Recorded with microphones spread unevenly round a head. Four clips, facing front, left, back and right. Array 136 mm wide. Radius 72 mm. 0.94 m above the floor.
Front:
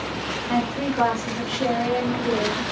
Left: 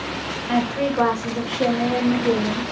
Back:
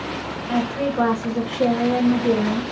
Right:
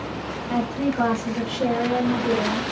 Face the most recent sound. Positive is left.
turn(degrees=-175)